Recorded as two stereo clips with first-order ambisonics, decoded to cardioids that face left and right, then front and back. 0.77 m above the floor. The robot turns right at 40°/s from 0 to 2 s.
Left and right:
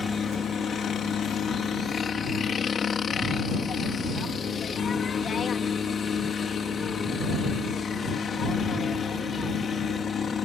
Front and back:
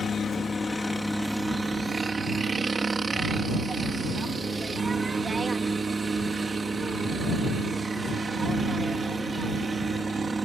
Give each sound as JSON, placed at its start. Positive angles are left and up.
{"t": 0.0, "sound": "a helicopter", "azimuth_deg": 40}